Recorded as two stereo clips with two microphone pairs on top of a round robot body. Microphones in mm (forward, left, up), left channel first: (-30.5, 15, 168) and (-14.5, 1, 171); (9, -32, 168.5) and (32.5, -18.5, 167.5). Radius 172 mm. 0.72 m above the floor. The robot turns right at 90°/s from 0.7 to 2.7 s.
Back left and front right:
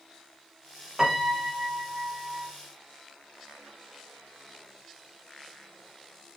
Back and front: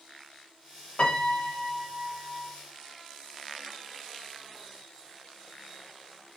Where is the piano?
120° right, 0.6 m; by 2.5 s 20° left, 0.6 m.